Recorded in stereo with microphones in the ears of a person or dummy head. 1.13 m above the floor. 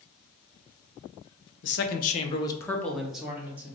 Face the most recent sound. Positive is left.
turn(degrees=-15)  # may be behind; listen again after turning